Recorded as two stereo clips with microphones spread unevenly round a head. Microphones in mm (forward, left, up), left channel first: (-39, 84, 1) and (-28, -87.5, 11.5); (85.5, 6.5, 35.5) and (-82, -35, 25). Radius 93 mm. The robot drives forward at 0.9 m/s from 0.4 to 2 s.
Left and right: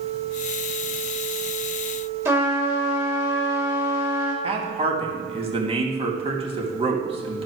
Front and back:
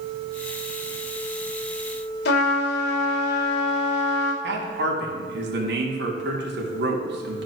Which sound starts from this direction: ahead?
A trumpet, at 2.2 s.